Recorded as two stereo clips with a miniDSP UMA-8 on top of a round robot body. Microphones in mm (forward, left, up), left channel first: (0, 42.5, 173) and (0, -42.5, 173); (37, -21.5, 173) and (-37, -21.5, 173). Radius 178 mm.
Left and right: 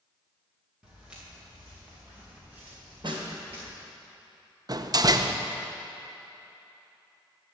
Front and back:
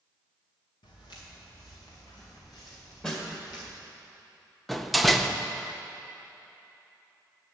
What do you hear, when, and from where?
0.8 s footsteps: 10° right, 3 m; by 3.7 s 20° right, 4.5 m
3.0 s a snare drum: 75° right, 1.9 m
4.7 s a door slam: 90° right, 0.8 m